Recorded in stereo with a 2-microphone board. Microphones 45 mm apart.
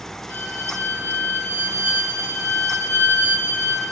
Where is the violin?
75° left (ahead or behind), 5 m.